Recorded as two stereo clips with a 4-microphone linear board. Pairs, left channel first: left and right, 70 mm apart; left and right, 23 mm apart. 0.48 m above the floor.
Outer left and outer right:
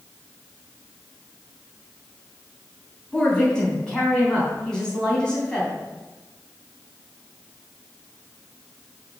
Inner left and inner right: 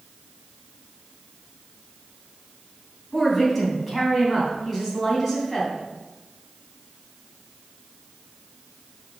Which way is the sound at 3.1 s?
10° left (ahead or behind).